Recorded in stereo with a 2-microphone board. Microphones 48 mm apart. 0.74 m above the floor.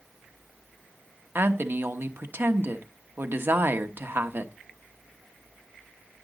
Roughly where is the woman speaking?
Right.